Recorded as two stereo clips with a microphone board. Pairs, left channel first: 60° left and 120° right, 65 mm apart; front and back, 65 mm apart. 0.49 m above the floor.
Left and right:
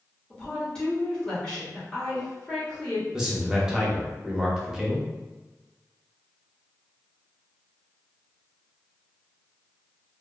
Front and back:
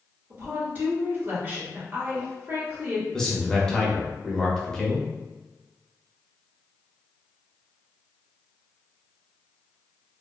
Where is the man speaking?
60° right, 0.7 m.